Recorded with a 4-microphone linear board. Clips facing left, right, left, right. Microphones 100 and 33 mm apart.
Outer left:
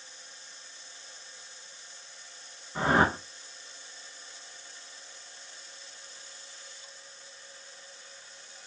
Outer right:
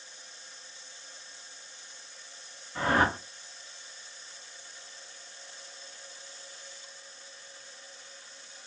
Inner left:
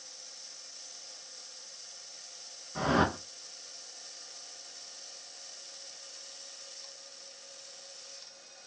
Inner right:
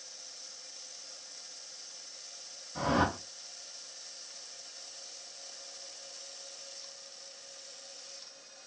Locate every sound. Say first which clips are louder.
2.8 s a whoosh: outer left 1 dB, inner left 1 dB; 25° left (ahead or behind), 0.6 m